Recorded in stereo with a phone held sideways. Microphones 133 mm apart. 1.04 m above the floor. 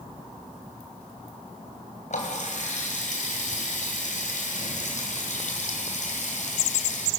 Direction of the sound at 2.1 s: 65° left (ahead or behind).